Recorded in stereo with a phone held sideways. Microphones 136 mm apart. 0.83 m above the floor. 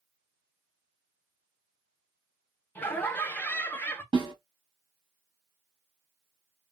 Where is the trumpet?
No trumpet in this recording.